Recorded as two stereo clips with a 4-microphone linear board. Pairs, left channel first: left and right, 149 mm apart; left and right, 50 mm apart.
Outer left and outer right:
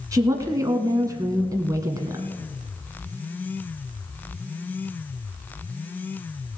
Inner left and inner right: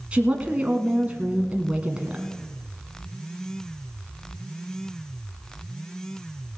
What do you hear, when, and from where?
0.1 s a woman speaking: 25° right (ahead or behind), 1.1 m